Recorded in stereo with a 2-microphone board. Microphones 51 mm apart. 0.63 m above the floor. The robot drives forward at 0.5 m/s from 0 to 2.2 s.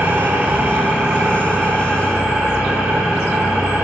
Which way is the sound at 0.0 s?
35° right (ahead or behind).